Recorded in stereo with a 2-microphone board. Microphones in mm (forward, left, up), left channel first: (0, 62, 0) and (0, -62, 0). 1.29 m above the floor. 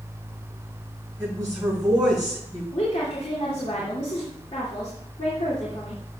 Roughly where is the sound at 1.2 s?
Right.